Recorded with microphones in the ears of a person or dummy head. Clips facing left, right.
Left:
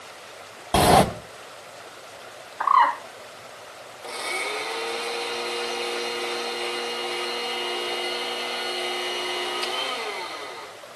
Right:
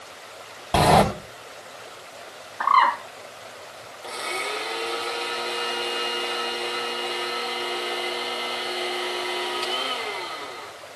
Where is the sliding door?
5° left (ahead or behind), 3 m.